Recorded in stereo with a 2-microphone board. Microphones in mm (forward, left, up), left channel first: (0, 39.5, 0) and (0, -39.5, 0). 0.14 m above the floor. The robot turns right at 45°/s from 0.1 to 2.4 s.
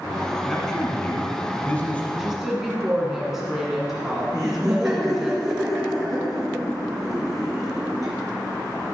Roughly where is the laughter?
Centre.